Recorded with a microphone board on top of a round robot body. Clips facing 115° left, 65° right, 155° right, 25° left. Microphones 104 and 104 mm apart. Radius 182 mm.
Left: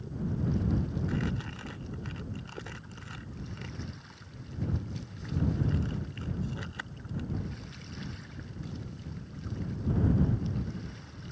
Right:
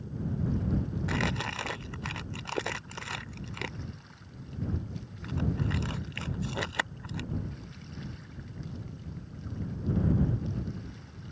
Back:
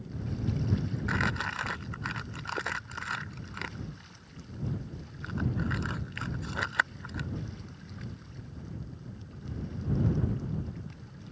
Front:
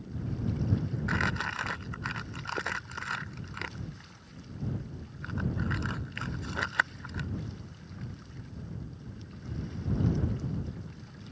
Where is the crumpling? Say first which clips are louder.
Right 2 dB, even; 70° right.